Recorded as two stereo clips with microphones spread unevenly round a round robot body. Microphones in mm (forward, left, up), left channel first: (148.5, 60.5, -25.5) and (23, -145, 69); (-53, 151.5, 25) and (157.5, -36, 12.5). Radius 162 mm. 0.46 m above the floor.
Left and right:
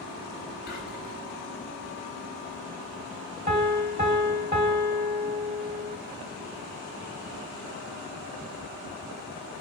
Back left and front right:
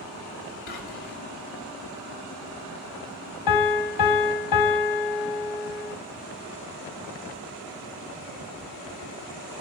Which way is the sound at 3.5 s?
165° left.